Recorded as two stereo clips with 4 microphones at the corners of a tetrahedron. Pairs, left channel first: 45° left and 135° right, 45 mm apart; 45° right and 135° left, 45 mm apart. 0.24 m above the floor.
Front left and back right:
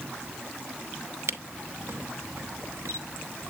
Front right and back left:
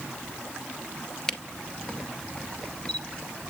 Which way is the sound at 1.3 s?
120° right.